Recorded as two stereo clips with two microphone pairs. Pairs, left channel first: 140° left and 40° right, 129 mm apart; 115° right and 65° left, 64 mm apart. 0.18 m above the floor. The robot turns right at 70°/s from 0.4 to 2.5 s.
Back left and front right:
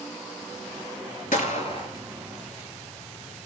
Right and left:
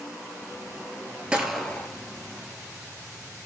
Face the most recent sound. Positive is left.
turn(degrees=-135)